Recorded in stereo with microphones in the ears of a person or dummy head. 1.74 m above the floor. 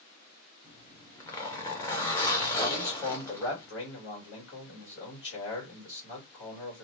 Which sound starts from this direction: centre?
A zipper, at 0.6 s.